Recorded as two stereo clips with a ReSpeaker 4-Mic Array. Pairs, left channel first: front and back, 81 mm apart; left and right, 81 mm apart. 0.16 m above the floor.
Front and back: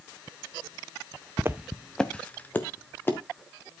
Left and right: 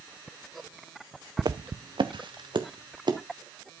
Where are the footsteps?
125° right, 0.7 m; by 3.2 s 60° right, 2.5 m.